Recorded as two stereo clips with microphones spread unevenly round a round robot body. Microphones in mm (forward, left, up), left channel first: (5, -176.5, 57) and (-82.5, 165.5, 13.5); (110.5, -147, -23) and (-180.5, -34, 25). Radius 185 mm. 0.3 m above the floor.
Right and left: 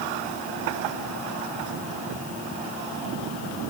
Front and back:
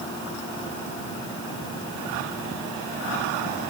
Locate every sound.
Only background noise.